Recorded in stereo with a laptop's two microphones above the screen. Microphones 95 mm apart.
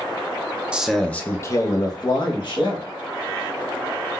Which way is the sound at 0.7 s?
10° right (ahead or behind).